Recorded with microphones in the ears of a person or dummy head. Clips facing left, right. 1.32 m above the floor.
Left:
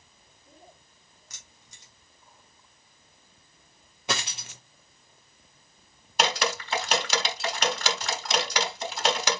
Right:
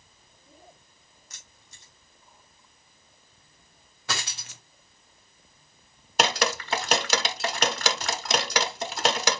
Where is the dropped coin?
10° left (ahead or behind), 0.7 m.